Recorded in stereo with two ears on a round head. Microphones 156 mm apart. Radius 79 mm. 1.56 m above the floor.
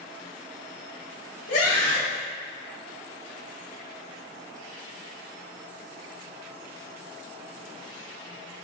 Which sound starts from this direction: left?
A scream, at 1.5 s.